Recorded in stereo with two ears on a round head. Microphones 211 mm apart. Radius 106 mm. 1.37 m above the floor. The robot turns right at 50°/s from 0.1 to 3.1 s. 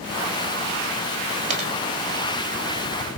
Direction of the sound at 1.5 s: 35° right (ahead or behind).